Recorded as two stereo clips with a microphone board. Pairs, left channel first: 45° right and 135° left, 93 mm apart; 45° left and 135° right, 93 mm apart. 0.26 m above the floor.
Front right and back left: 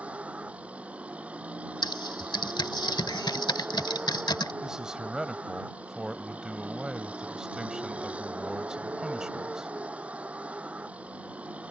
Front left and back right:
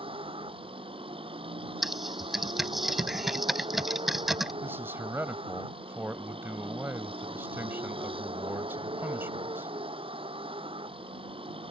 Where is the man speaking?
150° right.